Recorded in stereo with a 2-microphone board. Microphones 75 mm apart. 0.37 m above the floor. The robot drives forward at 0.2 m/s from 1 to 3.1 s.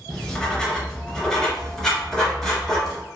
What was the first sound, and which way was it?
Writing, 10° left (ahead or behind).